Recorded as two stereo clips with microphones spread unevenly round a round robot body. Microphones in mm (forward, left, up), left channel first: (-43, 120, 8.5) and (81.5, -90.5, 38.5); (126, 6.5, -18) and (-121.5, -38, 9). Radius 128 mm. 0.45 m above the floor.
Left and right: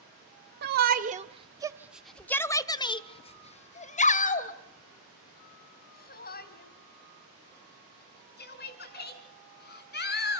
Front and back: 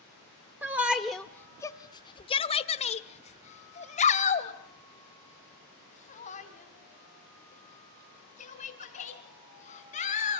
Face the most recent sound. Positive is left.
turn(degrees=75)